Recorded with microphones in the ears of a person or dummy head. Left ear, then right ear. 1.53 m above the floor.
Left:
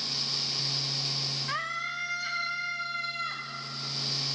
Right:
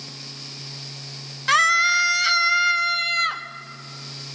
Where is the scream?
70° right (ahead or behind), 1.2 m.